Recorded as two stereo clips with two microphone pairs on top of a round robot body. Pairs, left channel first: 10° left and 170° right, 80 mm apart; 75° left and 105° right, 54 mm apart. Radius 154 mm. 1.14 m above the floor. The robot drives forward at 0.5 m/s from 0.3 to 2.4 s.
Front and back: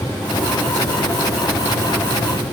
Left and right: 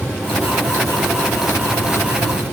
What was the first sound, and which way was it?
Only background noise.